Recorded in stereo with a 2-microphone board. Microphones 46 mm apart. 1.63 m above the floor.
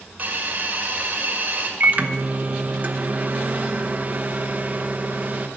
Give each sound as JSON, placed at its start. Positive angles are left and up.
{"t": 0.2, "sound": "a hiss", "side_deg": -35, "distance_m": 1.9}
{"t": 1.8, "sound": "a microwave", "side_deg": -35, "distance_m": 0.9}